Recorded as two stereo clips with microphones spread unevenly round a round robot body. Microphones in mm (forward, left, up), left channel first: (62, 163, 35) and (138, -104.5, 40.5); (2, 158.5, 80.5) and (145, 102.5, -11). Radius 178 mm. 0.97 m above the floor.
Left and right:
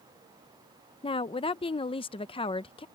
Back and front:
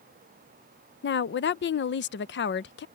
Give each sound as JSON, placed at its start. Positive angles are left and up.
{"t": 1.0, "sound": "a woman speaking", "azimuth_deg": 165}